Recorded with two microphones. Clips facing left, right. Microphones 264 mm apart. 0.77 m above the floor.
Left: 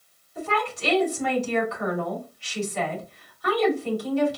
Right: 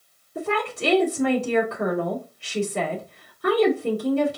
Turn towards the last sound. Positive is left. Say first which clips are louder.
# right 3 dB
turn(degrees=-60)  # may be behind; listen again after turning